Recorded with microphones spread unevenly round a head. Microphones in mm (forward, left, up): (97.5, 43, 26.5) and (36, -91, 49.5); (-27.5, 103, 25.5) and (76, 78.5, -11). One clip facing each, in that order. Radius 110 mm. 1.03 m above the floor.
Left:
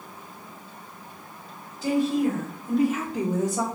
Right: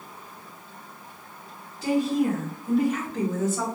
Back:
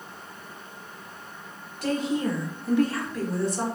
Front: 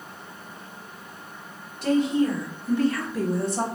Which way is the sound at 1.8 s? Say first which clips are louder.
Even, front 5 dB; 165° left.